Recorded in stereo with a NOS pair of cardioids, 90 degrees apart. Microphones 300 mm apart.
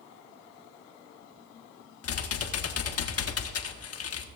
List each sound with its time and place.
2.0 s typing on a keyboard: 50° left, 1.5 m